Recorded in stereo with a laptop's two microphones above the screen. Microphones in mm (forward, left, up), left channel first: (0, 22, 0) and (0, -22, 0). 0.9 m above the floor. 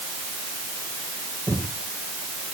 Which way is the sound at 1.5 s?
50° right (ahead or behind).